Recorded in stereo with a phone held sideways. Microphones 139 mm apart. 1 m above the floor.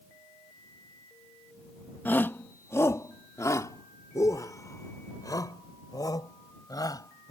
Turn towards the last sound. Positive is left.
turn(degrees=25)  # may be behind; listen again after turning